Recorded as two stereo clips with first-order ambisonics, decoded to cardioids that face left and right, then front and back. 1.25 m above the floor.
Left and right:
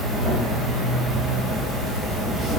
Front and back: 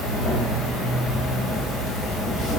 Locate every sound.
0.0 s an insect: 25° right, 1.1 m